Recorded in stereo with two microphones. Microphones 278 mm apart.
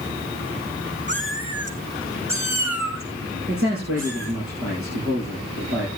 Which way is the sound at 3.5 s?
50° right (ahead or behind).